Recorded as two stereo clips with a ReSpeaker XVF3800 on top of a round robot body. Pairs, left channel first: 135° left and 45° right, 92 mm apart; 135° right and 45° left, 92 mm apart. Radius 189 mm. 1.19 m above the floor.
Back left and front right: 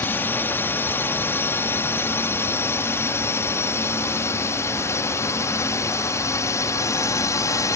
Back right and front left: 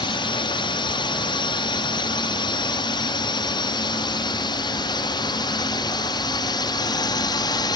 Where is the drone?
160° right; by 7.8 s 170° right.